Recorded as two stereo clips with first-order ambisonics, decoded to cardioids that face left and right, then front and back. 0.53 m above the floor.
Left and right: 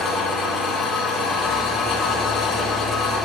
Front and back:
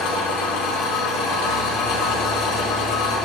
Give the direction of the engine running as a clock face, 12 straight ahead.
11 o'clock.